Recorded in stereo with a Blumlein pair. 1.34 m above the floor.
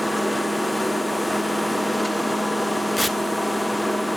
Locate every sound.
0.0 s a machine running: straight ahead, 0.7 m
3.0 s tearing paper: 5° right, 1.1 m